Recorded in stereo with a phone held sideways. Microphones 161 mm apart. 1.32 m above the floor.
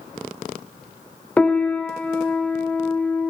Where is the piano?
10° left (ahead or behind), 0.6 m.